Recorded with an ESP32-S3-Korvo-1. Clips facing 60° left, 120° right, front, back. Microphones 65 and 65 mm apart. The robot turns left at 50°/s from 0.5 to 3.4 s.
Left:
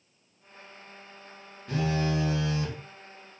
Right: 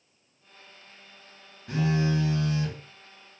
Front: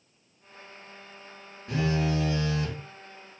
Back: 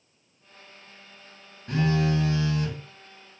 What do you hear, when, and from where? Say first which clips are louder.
1.7 s a phone buzzing: right 2 dB, back 3 dB; 160° left, 1.8 m; by 2.8 s 110° left, 1.8 m